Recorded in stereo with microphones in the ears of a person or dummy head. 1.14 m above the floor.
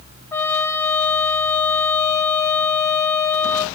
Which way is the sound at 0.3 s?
20° left (ahead or behind).